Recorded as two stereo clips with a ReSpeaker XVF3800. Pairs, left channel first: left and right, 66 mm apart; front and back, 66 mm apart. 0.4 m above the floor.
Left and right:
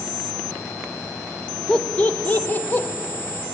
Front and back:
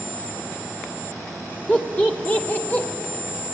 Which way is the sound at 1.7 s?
30° left.